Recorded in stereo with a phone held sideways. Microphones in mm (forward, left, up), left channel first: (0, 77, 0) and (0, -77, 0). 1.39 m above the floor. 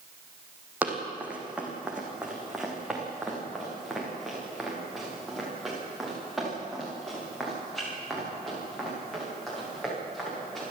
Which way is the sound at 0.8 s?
10° right (ahead or behind).